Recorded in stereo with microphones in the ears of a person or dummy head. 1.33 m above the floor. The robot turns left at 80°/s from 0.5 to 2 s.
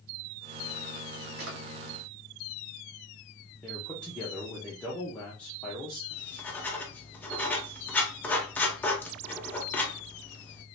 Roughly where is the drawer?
Right.